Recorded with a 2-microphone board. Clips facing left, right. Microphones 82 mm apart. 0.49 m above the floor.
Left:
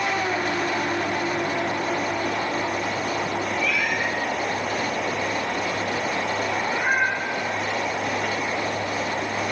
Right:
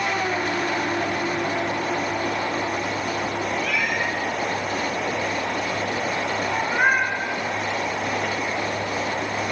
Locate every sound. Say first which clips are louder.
3.6 s a cat meowing: even; 50° right (ahead or behind), 6.5 m; by 7.1 s 65° right (ahead or behind), 5 m